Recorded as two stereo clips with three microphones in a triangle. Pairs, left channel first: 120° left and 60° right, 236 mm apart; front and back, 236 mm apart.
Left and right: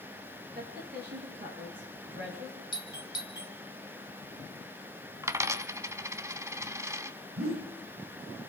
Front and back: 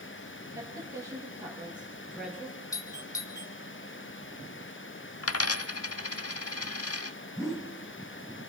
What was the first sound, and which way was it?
A woman speaking, 105° right.